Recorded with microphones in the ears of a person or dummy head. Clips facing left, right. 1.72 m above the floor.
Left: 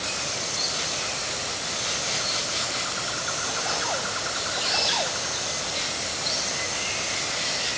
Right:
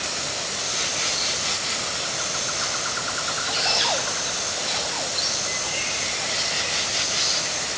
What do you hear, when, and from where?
Only background noise.